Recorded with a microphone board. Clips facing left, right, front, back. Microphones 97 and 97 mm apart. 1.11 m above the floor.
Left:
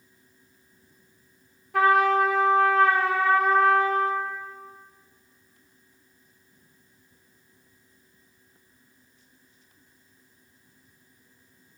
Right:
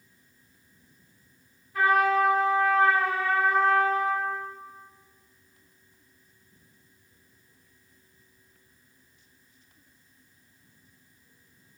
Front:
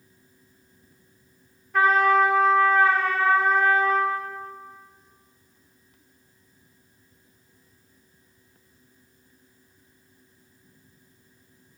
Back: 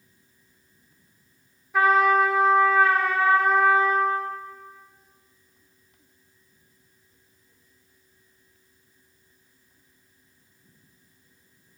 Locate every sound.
1.7 s a trumpet: 95° left, 1.0 m